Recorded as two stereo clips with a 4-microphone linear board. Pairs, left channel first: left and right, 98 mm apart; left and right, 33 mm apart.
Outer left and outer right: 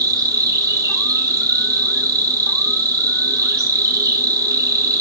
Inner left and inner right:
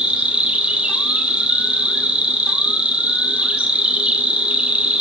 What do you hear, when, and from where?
0.0 s an insect: 35° right (ahead or behind), 3.5 m